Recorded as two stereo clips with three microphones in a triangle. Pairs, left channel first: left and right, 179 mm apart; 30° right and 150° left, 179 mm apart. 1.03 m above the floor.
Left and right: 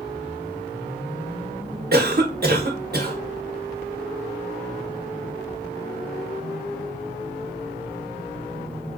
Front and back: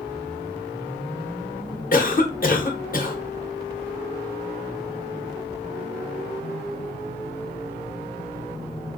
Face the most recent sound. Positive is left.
turn(degrees=-65)